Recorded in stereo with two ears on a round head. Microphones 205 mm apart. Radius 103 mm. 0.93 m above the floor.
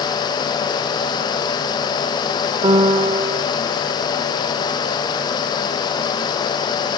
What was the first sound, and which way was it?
A piano, 25° right (ahead or behind).